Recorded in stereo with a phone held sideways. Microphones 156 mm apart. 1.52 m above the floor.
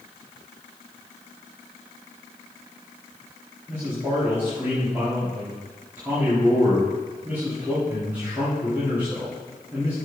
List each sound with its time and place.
3.7 s a man speaking: 15° right (ahead or behind), 4 m